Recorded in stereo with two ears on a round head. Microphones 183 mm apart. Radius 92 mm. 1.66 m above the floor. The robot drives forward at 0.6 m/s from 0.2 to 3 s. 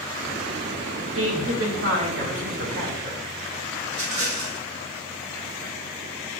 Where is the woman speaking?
75° right (ahead or behind), 2.5 m; by 3.2 s 55° right (ahead or behind), 2.5 m.